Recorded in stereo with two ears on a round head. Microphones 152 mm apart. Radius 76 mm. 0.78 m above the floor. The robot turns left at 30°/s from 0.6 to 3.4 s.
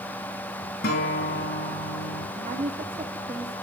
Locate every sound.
0.8 s a guitar: 120° left, 5 m; by 2.2 s 75° left, 5 m
2.4 s a woman speaking: 125° right, 1.5 m; by 3.5 s 160° right, 1.5 m